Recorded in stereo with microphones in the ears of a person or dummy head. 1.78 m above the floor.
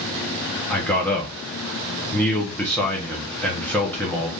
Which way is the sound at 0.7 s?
5° left (ahead or behind).